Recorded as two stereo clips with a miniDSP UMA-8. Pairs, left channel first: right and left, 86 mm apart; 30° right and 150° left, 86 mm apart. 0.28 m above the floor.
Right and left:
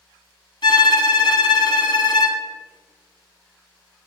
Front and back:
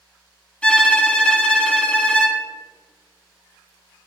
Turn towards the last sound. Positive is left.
turn(degrees=-105)